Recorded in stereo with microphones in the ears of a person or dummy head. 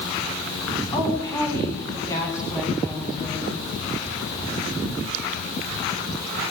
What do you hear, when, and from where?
0.9 s a woman speaking: 20° left (ahead or behind), 10 m; by 3.6 s 15° left (ahead or behind), 8.5 m